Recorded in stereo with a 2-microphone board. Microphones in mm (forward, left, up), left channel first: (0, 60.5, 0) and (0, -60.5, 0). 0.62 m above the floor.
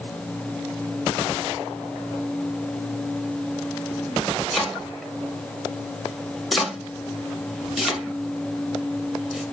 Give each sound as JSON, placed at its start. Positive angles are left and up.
{"t": 4.5, "sound": "chopping", "side_deg": 0, "distance_m": 1.2}